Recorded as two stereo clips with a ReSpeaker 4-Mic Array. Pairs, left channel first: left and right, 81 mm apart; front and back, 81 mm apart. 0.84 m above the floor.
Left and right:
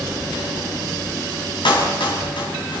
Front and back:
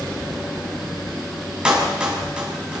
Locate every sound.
1.6 s a clap: 100° left, 6 m